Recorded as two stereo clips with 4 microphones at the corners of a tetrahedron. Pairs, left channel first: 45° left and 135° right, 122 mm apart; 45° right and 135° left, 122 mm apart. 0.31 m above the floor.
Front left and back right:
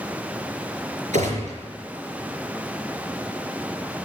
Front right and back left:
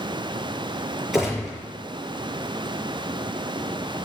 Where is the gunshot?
140° right, 5 m.